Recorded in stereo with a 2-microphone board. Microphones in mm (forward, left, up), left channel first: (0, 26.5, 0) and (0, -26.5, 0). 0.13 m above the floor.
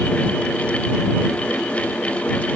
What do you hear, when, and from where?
Only background noise.